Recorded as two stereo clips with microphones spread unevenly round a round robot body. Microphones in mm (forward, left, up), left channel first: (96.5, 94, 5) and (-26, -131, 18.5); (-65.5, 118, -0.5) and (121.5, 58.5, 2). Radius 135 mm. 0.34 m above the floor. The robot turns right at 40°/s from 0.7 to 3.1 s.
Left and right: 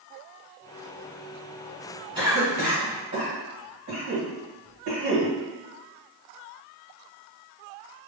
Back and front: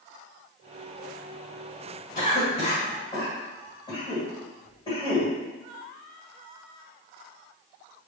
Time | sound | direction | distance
2.1 | a cough | 175° left | 1.7 m